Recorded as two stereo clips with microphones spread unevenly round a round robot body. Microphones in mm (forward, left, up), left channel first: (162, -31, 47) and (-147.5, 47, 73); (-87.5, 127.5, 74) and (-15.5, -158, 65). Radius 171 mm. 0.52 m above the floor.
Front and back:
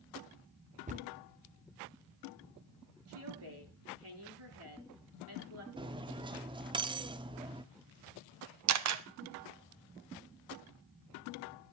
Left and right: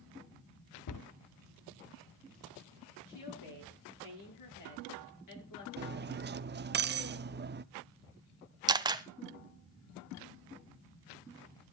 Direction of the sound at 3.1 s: 120° left.